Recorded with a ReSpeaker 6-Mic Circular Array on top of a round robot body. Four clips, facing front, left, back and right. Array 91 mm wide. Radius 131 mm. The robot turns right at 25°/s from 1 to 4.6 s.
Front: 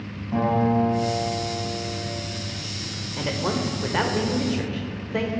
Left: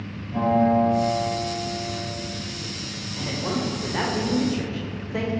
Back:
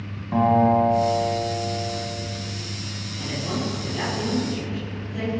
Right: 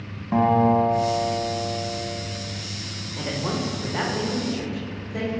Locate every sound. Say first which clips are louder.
0.3 s a guitar: right 1 dB, back 4 dB; 110° right, 3.5 m; by 2.0 s 85° right, 3.5 m
3.2 s a man speaking: even, front 3 dB; 15° right, 2.5 m; by 5.3 s 20° left, 2.5 m